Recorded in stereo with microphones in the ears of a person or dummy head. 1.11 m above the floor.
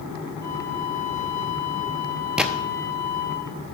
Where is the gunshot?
Centre (ahead or behind), 0.9 m.